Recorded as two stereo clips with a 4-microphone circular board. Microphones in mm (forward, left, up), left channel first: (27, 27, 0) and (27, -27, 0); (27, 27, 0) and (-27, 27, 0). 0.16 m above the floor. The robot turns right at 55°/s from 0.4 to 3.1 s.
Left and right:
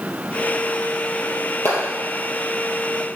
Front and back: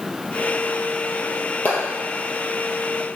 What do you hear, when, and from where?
1.6 s a clap: 60° left, 3 m; by 1.9 s 70° left, 3 m